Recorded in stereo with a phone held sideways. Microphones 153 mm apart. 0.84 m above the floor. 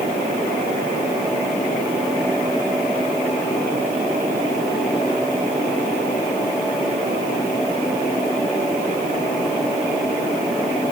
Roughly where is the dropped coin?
No dropped coin in this recording.